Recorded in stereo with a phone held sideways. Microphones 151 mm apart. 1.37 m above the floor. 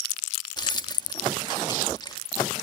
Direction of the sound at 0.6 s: 30° left (ahead or behind).